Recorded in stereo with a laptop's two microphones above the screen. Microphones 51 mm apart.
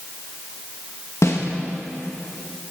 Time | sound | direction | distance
1.2 | a snare drum | 65° left (ahead or behind) | 1.6 m